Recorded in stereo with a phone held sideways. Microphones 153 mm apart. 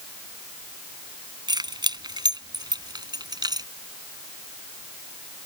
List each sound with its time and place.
1.5 s keys jangling: 30° right (ahead or behind)